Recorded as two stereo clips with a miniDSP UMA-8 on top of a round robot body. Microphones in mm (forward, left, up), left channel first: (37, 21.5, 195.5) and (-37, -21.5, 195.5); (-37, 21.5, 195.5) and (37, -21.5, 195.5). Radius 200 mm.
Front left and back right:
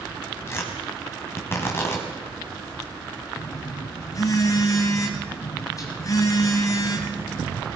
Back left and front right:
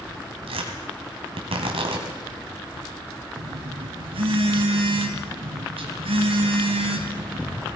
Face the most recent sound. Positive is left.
turn(degrees=-20)